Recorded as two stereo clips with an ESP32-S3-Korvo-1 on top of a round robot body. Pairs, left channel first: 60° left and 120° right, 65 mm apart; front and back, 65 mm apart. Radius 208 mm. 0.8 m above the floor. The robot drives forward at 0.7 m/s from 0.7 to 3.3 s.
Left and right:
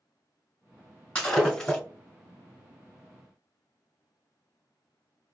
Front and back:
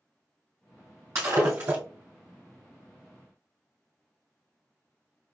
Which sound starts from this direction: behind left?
Breaking glass, at 1.1 s.